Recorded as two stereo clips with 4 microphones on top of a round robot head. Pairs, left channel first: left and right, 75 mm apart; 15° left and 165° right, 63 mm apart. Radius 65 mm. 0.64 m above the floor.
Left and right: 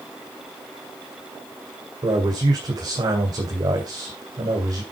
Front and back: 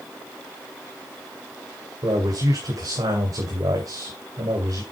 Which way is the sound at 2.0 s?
130° right.